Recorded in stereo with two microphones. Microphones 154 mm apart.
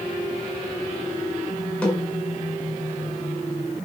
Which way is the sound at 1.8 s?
5° left (ahead or behind).